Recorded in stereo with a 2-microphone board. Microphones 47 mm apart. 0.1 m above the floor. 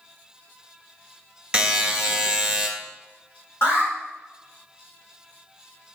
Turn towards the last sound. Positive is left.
turn(degrees=60)  # may be behind; listen again after turning